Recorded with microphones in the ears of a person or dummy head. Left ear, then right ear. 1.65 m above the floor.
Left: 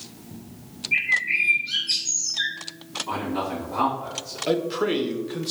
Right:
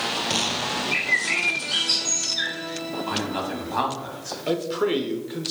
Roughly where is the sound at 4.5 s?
Centre.